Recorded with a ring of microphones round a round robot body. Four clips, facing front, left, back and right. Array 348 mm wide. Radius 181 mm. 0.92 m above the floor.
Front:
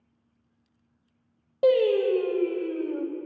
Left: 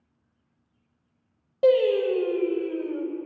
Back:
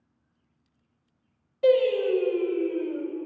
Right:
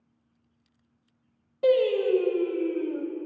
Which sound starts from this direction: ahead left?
Singing, at 1.6 s.